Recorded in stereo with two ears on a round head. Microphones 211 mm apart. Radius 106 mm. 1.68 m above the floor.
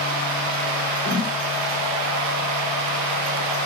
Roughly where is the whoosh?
Right.